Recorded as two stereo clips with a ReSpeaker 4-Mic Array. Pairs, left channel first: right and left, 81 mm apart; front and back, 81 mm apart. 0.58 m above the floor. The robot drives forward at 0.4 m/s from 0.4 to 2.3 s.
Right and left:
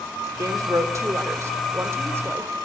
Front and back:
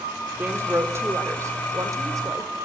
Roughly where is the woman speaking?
Behind left.